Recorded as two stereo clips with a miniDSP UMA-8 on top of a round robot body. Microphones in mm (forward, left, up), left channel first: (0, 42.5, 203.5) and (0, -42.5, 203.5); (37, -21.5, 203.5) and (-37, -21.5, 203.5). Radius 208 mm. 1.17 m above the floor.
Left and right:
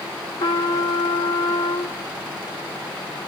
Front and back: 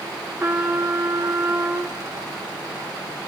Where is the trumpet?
105° left, 0.8 m.